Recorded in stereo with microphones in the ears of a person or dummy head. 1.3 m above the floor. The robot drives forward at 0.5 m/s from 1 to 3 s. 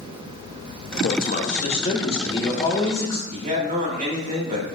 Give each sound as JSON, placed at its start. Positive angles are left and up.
{"t": 1.0, "sound": "a man speaking", "side_deg": 45, "distance_m": 0.8}
{"t": 3.3, "sound": "a man speaking", "side_deg": -40, "distance_m": 1.9}